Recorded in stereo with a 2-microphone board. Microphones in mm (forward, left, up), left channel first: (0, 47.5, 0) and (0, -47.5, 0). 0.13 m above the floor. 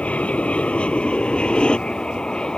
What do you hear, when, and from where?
0.0 s an aircraft: 15° left (ahead or behind); by 2.6 s 10° left (ahead or behind)